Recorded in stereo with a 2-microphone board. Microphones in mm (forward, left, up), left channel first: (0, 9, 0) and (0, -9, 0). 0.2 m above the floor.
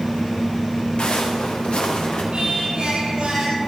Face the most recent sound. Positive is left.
turn(degrees=-60)  # may be behind; listen again after turning